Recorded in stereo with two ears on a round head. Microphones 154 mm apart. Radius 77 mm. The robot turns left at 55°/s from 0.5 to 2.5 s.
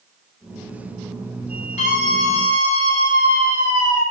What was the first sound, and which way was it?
A scream, 135° left.